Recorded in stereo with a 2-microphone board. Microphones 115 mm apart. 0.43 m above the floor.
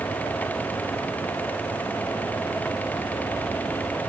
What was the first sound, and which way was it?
Only background noise.